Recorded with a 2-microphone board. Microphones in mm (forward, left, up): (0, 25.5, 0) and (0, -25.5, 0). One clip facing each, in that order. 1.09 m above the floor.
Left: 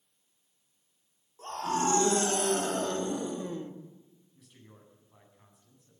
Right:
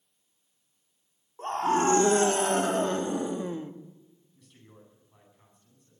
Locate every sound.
1.4 s a scream: 35° right (ahead or behind), 3 m; by 3.7 s 15° right (ahead or behind), 1.9 m
4.3 s a man speaking: 5° left (ahead or behind), 9.5 m